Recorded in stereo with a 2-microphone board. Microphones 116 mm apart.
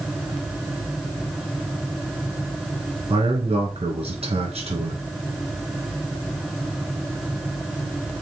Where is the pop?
No pop in this recording.